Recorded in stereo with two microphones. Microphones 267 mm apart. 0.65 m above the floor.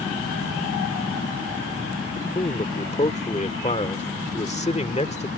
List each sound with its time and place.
2.2 s a man speaking: 25° left (ahead or behind)